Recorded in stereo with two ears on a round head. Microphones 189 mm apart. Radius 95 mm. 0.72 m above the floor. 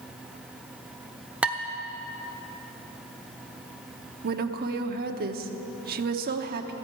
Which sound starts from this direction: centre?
Dishes clattering, at 1.4 s.